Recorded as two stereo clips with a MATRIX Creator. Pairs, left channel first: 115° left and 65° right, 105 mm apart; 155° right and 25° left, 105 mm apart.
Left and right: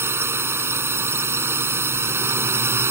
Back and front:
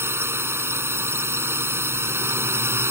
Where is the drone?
20° right.